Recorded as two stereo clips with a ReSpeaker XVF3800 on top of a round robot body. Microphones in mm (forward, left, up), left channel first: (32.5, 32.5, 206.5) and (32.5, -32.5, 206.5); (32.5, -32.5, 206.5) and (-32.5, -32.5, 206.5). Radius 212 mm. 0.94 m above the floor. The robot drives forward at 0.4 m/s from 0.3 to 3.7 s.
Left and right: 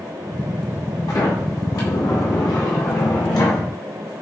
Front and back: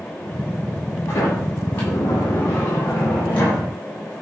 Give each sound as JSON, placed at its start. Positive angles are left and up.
{"t": 1.1, "sound": "a sliding door", "azimuth_deg": 60, "distance_m": 9.0}